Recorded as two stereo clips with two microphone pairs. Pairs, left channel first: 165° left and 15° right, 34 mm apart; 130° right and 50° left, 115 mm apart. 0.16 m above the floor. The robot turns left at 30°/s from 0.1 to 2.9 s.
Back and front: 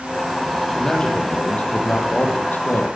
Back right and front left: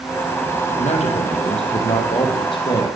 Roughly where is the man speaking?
Behind right.